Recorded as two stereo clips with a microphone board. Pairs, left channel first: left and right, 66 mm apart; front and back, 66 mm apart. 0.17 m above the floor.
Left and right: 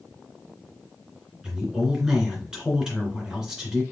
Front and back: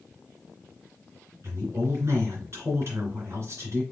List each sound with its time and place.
1.4 s a woman speaking: 165° right, 2.5 m